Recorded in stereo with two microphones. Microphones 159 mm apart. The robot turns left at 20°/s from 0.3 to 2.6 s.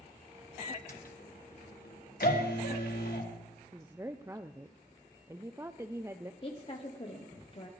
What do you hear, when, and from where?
0.6 s a microwave: 50° left (ahead or behind), 1.6 m; by 3.2 s 80° left, 1.6 m
2.2 s a shout: 80° left, 2 m
3.7 s a woman speaking: 15° right (ahead or behind), 0.5 m
6.4 s a woman speaking: 35° left (ahead or behind), 1.0 m